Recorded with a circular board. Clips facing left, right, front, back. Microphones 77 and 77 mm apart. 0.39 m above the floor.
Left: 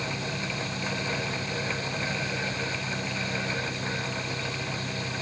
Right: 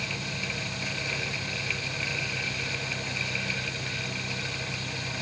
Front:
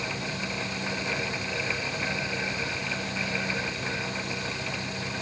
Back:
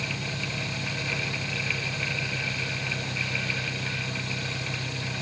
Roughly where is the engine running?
Behind left.